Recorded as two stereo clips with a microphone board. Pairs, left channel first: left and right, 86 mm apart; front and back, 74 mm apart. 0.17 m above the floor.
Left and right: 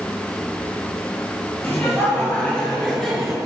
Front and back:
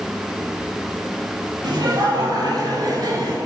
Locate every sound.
1.6 s laughter: 155° left, 4 m; by 3.4 s straight behind, 2.5 m